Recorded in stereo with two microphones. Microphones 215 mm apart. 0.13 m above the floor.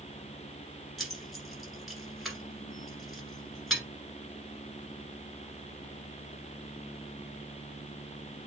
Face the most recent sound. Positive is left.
turn(degrees=0)  # may be behind; listen again after turning